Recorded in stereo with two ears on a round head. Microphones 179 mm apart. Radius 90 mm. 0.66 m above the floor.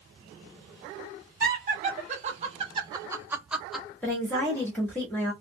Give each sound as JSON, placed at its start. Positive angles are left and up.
{"t": 1.4, "sound": "laughter", "side_deg": -40, "distance_m": 1.1}
{"t": 4.0, "sound": "a woman speaking", "side_deg": 10, "distance_m": 1.1}